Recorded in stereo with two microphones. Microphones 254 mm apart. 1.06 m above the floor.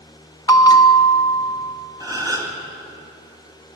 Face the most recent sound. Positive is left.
turn(degrees=-15)  # may be behind; listen again after turning